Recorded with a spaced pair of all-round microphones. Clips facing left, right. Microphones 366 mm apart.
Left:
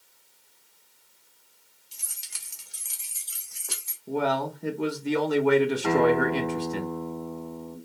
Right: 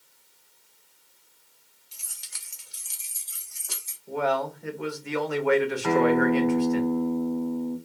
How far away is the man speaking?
About 0.7 m.